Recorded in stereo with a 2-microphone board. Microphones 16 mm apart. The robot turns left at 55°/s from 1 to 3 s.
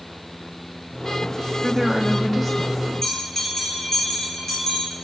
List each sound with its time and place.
1.6 s a woman speaking: 175° right, 1.0 m; by 3.2 s 110° left, 1.0 m
3.0 s a bell: 35° left (ahead or behind), 5 m